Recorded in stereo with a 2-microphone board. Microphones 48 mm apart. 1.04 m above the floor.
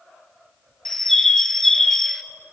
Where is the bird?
10° left (ahead or behind), 1.2 m.